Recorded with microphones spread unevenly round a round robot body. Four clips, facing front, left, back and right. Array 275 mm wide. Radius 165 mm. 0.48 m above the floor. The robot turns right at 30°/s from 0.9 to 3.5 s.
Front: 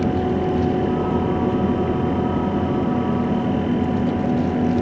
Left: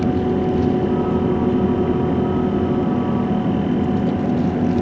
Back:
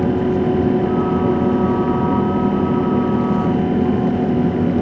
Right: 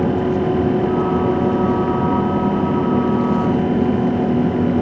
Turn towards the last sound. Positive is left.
No sound to turn to.